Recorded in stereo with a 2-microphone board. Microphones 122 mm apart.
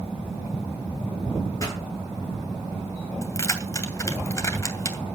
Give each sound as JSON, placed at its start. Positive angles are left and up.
{"t": 1.6, "sound": "a pop", "side_deg": 30, "distance_m": 9.0}
{"t": 3.2, "sound": "keys jangling", "side_deg": 25, "distance_m": 2.5}